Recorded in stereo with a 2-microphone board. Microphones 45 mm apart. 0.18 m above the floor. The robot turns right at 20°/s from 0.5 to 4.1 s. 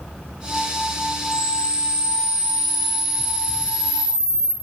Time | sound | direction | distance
1.3 | a camera shutter | 40° right | 1.8 m